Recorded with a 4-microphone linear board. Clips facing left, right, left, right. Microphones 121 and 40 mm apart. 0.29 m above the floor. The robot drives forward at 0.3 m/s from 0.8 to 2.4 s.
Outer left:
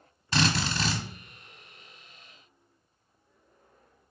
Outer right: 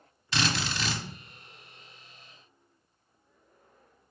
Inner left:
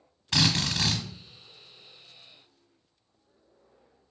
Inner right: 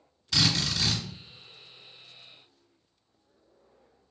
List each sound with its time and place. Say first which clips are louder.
0.3 s a drill: outer left 3 dB, inner left 1 dB; 40° left (ahead or behind), 1.1 m